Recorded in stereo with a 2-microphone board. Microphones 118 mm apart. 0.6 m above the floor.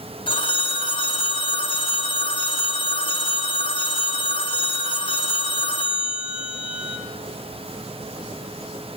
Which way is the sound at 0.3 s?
45° left (ahead or behind).